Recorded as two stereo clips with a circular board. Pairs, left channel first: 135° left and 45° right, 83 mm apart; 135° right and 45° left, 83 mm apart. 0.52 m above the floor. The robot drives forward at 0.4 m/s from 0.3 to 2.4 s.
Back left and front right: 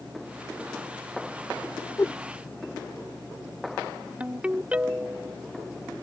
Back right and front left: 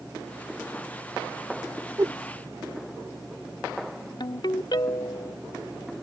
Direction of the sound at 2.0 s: 90° left.